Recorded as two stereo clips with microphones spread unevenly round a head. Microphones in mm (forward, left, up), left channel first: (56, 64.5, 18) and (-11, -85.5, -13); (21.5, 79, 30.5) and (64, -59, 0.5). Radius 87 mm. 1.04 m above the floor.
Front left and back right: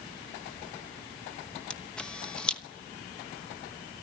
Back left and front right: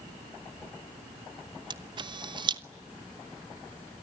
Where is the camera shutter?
25° right, 1.1 m.